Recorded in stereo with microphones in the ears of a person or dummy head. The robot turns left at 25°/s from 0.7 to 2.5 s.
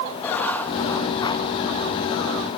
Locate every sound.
0.2 s writing: 10° left (ahead or behind), 1.9 m; by 1.5 s 25° left (ahead or behind), 1.9 m